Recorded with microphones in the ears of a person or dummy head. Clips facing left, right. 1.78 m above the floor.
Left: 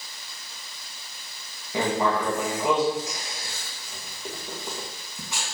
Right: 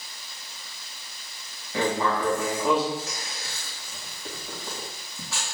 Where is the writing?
15° left (ahead or behind), 2 m.